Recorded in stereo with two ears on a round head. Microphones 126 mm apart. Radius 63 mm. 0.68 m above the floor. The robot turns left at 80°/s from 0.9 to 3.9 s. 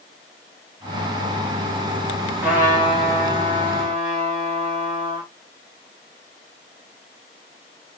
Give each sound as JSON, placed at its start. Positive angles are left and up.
{"t": 2.4, "sound": "a trumpet", "azimuth_deg": -5, "distance_m": 3.5}